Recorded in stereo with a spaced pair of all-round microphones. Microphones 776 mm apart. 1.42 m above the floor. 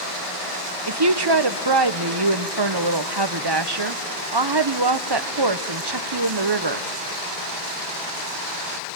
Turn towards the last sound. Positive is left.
turn(degrees=-30)  # may be behind; listen again after turning